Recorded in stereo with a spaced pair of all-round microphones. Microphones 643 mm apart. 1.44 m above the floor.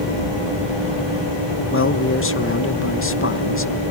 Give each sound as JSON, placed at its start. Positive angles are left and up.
{"t": 1.7, "sound": "a man speaking", "side_deg": 20, "distance_m": 0.9}